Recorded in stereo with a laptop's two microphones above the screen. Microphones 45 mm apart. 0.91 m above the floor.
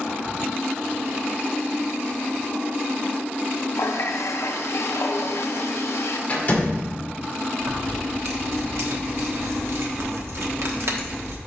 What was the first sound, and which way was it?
A running tap, 80° left.